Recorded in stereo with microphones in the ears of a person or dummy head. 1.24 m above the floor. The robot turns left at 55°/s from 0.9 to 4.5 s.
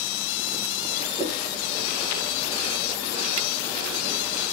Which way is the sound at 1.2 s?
20° right (ahead or behind).